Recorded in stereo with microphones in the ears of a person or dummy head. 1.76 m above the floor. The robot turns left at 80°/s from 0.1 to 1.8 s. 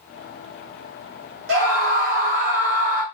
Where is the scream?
65° right (ahead or behind), 1.1 m; by 3.0 s 50° right (ahead or behind), 1.1 m.